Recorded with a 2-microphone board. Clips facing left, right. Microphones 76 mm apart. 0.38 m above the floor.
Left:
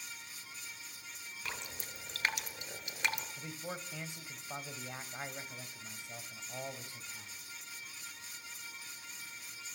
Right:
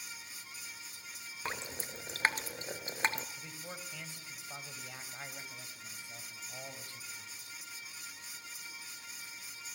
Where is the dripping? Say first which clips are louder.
Right 5 dB; 35° right (ahead or behind), 1.8 m.